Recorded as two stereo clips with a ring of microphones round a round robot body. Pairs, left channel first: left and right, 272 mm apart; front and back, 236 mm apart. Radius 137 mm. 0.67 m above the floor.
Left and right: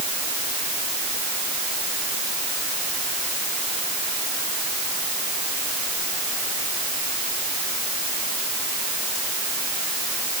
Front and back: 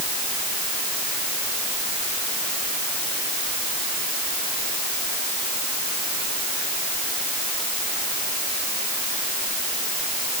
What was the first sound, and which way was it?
Only background noise.